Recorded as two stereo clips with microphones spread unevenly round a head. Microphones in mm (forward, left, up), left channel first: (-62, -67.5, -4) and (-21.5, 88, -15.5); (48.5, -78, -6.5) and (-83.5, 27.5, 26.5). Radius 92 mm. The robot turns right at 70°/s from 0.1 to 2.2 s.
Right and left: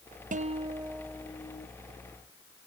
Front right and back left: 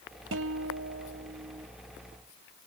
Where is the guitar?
115° left; by 1.7 s 150° right.